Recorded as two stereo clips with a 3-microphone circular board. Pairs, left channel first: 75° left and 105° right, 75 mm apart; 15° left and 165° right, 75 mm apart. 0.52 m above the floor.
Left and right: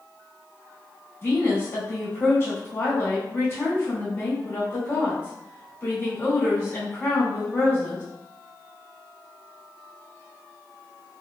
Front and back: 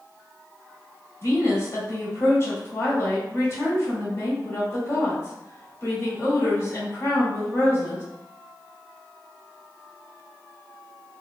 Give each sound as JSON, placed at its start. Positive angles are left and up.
{"t": 1.2, "sound": "a woman speaking", "azimuth_deg": 35, "distance_m": 1.3}